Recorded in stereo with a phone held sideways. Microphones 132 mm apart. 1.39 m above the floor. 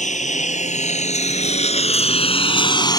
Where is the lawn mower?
65° left (ahead or behind); by 3.0 s 30° left (ahead or behind).